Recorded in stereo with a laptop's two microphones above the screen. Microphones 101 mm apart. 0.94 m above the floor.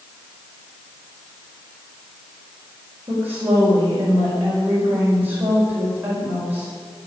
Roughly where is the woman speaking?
Centre.